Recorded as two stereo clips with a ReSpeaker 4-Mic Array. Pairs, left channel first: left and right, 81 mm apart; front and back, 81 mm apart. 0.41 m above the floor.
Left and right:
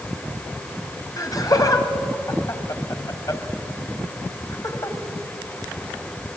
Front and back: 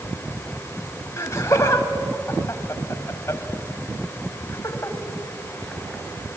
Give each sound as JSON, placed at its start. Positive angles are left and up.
{"t": 1.2, "sound": "laughter", "azimuth_deg": 55, "distance_m": 2.5}